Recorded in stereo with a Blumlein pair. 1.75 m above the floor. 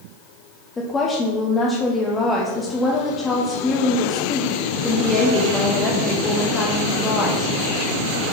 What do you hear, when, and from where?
0.8 s a woman speaking: 15° left, 0.9 m